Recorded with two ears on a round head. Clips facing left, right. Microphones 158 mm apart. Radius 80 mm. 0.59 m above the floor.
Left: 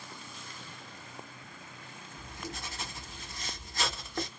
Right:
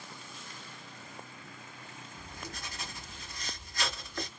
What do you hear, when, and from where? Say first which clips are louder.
2.2 s writing: left 4 dB; 25° left (ahead or behind), 1.5 m